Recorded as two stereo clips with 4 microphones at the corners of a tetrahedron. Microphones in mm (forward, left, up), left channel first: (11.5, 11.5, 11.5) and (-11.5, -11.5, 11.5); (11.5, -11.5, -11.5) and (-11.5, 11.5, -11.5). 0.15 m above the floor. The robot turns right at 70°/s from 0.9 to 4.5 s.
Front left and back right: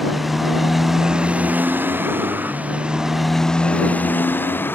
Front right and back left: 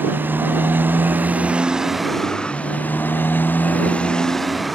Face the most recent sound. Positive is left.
turn(degrees=45)